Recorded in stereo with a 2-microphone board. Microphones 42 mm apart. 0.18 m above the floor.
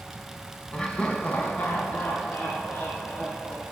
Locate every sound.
0.7 s laughter: 25° left (ahead or behind), 1.4 m; by 3.6 s 65° left (ahead or behind), 3.5 m